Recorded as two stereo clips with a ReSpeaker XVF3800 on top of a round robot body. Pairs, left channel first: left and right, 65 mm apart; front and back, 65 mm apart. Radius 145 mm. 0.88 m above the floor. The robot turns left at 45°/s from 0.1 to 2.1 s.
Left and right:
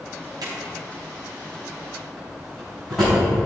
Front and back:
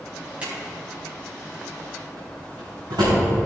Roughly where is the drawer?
Right.